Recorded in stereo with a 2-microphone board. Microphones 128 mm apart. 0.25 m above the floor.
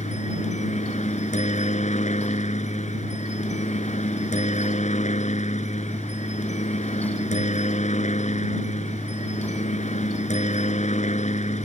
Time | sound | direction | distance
0.0 | a helicopter | 65° left (ahead or behind) | ?